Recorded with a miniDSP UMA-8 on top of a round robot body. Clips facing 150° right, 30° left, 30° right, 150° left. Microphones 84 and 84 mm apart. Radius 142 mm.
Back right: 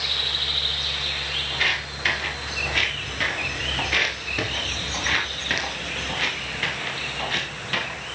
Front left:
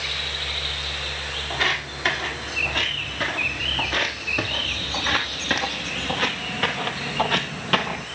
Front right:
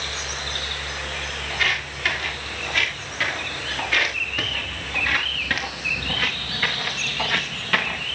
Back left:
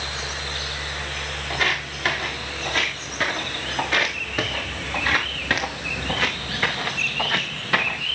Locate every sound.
1.5 s footsteps: 95° left, 6 m; by 8.1 s 70° left, 2.5 m